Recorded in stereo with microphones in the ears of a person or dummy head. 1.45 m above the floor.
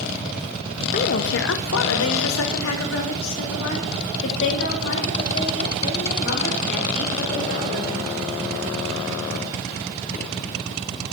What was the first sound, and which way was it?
A woman speaking, 40° left (ahead or behind).